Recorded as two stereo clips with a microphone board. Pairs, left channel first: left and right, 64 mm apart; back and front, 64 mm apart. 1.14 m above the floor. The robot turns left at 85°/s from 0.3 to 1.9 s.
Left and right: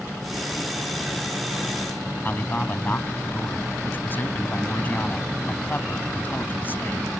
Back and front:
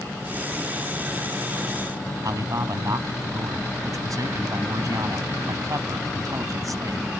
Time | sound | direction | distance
2.2 | a man speaking | 30° left | ?